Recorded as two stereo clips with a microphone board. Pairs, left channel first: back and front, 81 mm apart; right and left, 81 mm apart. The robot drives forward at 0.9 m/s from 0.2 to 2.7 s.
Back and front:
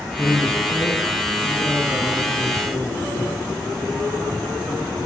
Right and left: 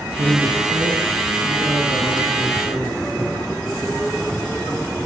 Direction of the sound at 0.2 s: 115° left.